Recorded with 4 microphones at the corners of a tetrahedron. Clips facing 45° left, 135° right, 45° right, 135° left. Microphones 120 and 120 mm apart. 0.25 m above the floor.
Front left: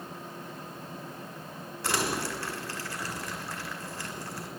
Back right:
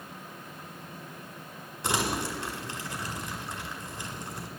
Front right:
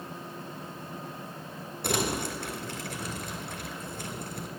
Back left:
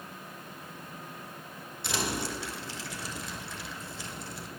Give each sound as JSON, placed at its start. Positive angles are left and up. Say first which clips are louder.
{"t": 1.8, "sound": "crumpling", "louder": "back right 1 dB, front right 3 dB", "azimuth_deg": -70, "distance_m": 2.0}